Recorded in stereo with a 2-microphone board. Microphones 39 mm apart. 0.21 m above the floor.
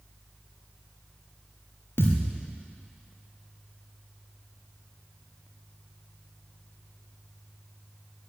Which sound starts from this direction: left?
A thud, at 2.0 s.